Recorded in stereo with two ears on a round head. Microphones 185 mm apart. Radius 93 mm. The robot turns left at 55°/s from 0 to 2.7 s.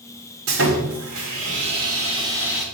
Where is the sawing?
60° right, 2.5 m; by 2.6 s straight behind, 2.5 m.